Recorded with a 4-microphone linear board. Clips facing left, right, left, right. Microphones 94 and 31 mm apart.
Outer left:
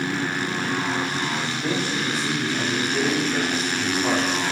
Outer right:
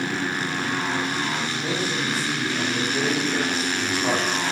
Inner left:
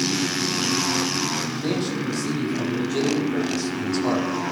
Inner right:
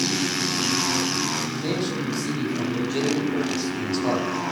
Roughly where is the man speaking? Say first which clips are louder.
Outer left 1 dB, inner left 1 dB; centre.